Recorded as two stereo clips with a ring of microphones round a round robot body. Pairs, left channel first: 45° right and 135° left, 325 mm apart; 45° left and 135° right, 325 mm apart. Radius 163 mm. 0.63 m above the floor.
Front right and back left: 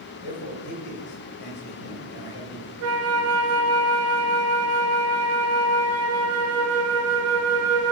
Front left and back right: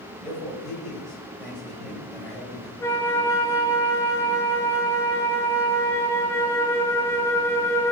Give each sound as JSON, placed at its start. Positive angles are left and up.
{"t": 0.2, "sound": "a man speaking", "azimuth_deg": -45, "distance_m": 3.0}
{"t": 2.8, "sound": "a flute", "azimuth_deg": 125, "distance_m": 0.8}